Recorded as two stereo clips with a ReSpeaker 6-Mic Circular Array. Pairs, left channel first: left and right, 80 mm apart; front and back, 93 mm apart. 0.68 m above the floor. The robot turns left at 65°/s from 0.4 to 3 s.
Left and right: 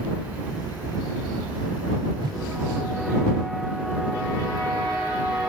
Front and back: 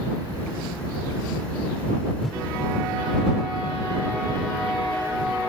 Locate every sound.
2.2 s a whoosh: 85° right; by 2.4 s 100° right